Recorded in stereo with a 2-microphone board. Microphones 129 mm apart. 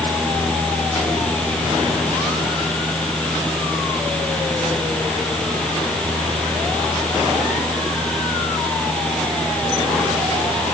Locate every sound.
Only background noise.